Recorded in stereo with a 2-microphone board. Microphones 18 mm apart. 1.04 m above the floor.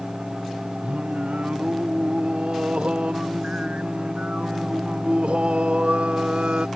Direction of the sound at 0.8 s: 80° right.